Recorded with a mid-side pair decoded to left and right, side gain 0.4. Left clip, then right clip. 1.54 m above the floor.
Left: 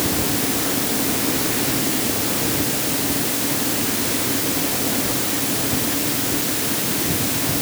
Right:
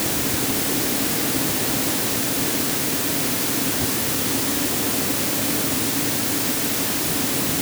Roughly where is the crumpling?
No crumpling in this recording.